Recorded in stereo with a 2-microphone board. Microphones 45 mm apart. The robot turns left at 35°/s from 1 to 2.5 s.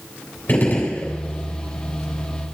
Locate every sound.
0.5 s a gunshot: 40° left (ahead or behind), 3.5 m; by 1.1 s 35° left (ahead or behind), 3.5 m